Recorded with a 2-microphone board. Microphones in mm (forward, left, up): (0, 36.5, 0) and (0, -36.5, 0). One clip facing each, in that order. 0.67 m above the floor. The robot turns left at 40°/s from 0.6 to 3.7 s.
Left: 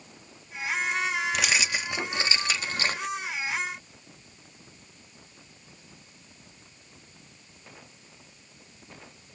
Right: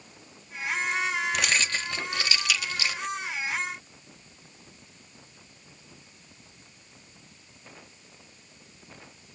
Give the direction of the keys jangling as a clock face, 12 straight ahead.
6 o'clock.